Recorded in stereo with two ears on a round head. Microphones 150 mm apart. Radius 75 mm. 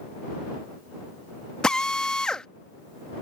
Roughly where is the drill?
Centre.